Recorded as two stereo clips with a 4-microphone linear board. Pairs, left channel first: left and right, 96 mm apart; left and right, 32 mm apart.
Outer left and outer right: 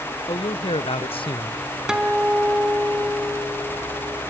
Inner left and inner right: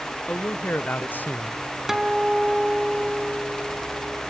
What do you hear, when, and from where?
0.3 s a man speaking: 65° left (ahead or behind), 1.4 m; by 1.6 s 25° left (ahead or behind), 0.6 m
1.9 s a guitar: 5° right (ahead or behind), 3.5 m